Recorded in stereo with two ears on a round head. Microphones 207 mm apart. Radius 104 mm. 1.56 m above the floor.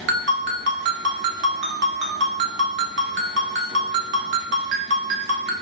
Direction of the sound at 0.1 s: 50° right (ahead or behind).